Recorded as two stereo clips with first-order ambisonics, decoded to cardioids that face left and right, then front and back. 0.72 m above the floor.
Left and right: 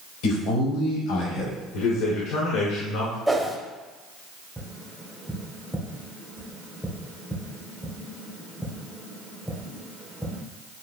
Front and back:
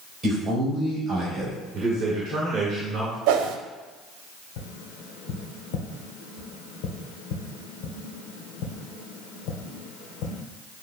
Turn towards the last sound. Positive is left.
turn(degrees=0)